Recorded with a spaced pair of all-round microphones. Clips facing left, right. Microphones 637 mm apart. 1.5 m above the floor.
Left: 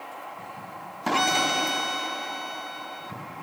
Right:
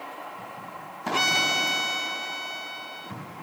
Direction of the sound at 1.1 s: 10° left (ahead or behind).